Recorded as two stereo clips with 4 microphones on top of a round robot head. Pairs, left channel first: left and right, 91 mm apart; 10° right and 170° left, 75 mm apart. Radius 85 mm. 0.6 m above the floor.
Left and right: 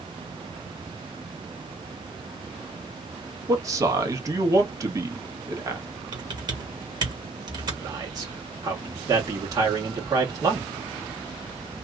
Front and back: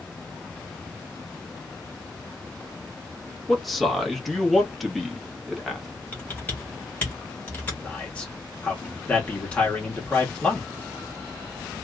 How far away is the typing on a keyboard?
About 1.8 m.